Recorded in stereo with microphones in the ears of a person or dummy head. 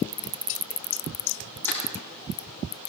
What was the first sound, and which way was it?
Crushing, 10° left (ahead or behind).